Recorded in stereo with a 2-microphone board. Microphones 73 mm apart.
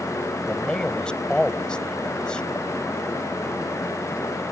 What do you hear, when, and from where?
0.5 s a man speaking: 10° left (ahead or behind)